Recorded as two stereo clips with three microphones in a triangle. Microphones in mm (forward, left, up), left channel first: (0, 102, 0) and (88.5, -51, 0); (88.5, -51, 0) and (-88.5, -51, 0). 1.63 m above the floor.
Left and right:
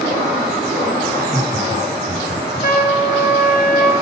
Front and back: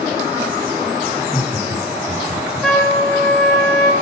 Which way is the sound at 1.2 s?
105° left.